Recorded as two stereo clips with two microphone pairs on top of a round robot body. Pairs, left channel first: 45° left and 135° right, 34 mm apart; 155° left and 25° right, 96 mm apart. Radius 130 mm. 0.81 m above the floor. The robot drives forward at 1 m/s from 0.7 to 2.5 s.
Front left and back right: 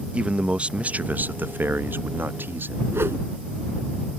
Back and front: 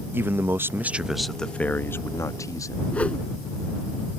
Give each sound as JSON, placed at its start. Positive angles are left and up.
{"t": 0.1, "sound": "a man speaking", "azimuth_deg": -80}
{"t": 2.9, "sound": "a whoosh", "azimuth_deg": -130}